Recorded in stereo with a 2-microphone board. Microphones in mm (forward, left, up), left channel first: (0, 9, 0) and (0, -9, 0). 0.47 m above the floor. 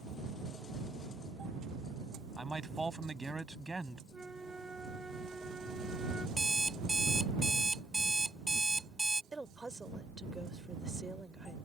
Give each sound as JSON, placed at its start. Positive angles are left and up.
{"t": 2.4, "sound": "a man speaking", "side_deg": 0}
{"t": 4.1, "sound": "a flute", "side_deg": -60}
{"t": 6.4, "sound": "an alarm clock", "side_deg": 15}
{"t": 9.3, "sound": "a woman speaking", "side_deg": -35}